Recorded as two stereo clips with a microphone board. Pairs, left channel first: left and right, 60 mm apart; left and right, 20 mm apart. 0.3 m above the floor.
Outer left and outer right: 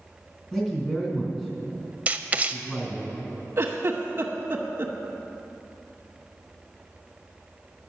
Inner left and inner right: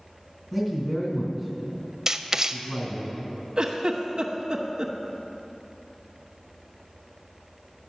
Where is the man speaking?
10° left (ahead or behind), 2.5 m.